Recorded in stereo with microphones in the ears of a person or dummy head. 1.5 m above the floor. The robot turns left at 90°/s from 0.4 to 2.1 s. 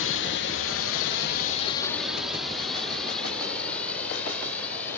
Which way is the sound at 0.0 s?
60° left (ahead or behind).